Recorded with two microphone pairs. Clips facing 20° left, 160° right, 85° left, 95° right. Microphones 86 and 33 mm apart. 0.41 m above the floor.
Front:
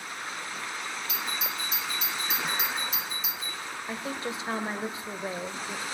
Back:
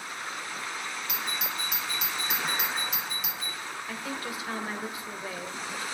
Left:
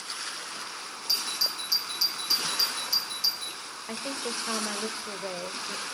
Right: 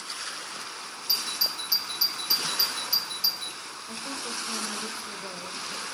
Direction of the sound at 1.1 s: 165° right.